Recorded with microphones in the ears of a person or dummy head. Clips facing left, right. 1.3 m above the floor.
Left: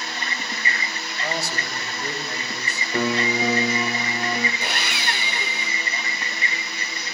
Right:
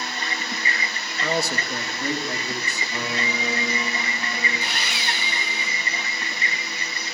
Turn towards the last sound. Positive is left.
turn(degrees=50)  # may be behind; listen again after turning